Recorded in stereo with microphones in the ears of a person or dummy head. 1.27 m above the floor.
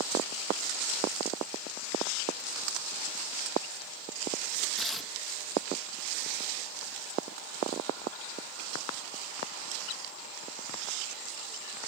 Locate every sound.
4.8 s tearing paper: centre (ahead or behind)